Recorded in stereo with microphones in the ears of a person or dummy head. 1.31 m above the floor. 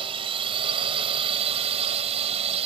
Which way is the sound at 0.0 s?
30° right (ahead or behind).